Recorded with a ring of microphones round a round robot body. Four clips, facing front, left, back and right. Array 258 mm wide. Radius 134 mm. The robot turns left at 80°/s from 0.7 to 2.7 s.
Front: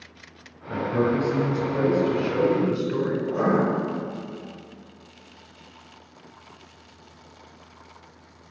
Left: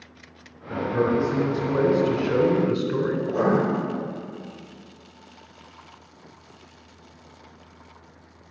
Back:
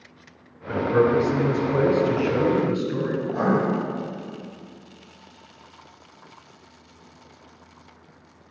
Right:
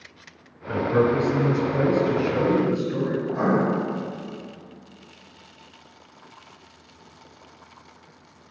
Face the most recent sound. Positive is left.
turn(degrees=60)